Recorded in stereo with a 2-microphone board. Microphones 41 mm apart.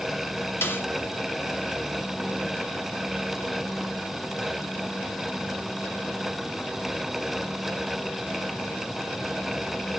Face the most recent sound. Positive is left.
turn(degrees=65)  # may be behind; listen again after turning